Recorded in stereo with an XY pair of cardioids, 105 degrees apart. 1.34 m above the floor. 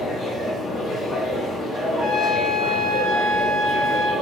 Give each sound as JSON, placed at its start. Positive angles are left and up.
{"t": 0.0, "sound": "a machine running", "azimuth_deg": 55, "distance_m": 1.2}
{"t": 1.9, "sound": "a trumpet", "azimuth_deg": 35, "distance_m": 0.9}